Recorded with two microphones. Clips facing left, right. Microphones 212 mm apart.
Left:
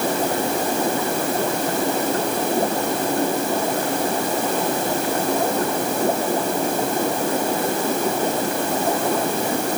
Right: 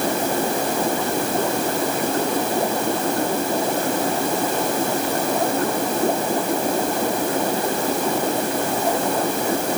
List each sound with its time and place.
Only background noise.